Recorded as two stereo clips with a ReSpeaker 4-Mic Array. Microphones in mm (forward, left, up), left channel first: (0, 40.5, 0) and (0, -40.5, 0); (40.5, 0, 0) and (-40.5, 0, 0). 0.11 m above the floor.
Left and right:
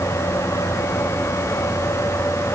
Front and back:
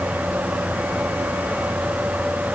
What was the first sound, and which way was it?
Only background noise.